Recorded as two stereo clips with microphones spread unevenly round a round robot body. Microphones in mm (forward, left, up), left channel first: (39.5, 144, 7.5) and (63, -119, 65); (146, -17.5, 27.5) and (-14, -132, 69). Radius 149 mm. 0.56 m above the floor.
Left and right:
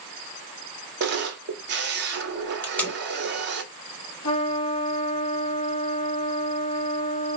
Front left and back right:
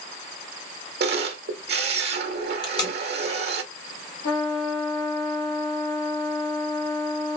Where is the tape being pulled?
40° left, 1.5 m.